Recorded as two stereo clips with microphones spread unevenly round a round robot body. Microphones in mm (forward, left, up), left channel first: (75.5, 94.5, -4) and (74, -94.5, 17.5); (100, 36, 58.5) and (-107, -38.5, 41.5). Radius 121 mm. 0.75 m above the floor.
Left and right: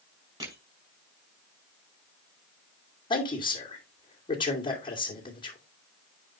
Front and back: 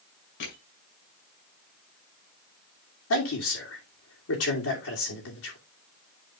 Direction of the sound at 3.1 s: 30° left.